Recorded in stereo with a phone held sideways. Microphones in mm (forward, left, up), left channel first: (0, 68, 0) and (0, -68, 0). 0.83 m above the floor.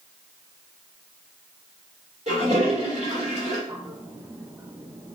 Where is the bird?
25° right (ahead or behind), 0.5 m.